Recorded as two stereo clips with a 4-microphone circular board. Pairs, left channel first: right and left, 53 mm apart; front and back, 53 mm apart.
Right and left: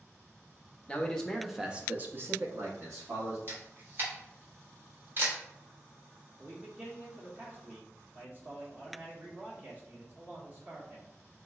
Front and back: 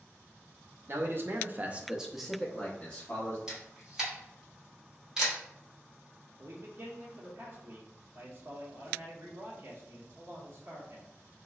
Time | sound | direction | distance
0.9 | a man speaking | 155° right | 0.7 m
3.5 | a camera shutter | 110° left | 1.3 m
6.4 | a man speaking | 145° left | 1.1 m